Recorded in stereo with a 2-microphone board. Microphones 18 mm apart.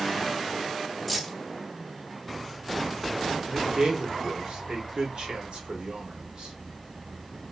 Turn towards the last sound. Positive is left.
turn(degrees=-65)  # may be behind; listen again after turning